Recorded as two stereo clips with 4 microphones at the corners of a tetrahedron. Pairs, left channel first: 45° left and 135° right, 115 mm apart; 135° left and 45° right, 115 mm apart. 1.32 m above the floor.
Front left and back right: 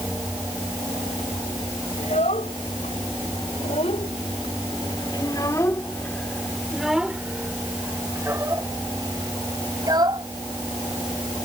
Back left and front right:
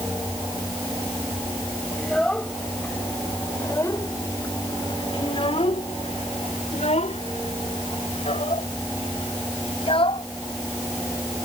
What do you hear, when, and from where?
2.0 s a child speaking: 50° left; by 10.3 s 175° left